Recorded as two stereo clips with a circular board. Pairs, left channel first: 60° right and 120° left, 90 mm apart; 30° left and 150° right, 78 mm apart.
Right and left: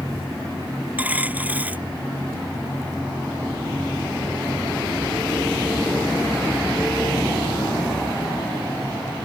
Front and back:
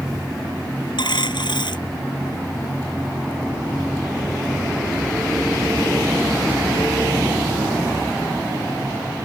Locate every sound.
1.0 s a dropped coin: 50° left